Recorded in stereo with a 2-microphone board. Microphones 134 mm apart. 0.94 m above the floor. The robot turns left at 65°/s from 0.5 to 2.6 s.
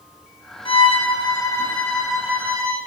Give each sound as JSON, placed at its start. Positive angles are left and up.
{"t": 0.7, "sound": "a violin", "azimuth_deg": 90, "distance_m": 0.6}